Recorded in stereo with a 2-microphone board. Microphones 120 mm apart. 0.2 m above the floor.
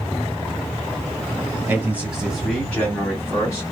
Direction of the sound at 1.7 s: 20° right (ahead or behind).